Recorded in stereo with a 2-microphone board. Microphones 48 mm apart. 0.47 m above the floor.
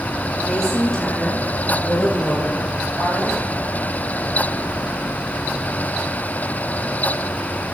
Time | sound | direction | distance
0.5 | a woman speaking | 10° left (ahead or behind) | 9.5 m